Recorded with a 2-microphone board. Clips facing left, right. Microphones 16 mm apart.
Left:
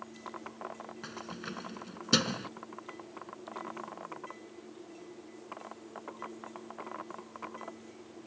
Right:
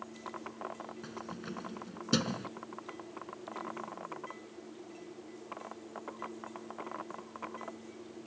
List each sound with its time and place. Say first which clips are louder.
1.0 s keys jangling: left 3 dB; 30° left (ahead or behind)